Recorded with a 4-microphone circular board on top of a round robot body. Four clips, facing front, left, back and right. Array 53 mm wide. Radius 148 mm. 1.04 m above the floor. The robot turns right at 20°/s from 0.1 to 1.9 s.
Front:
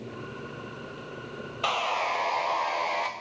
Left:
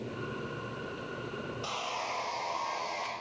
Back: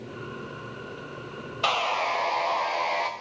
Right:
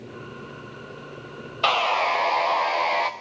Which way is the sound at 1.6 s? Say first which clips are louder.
Right 17 dB, back 2 dB; 100° right.